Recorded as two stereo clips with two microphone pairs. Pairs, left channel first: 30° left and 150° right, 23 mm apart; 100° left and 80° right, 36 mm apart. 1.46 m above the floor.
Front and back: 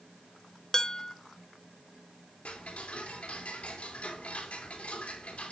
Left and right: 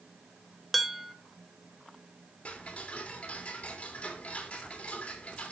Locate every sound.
0.7 s dishes clattering: 20° left, 0.6 m
2.5 s ticking: 45° left, 2 m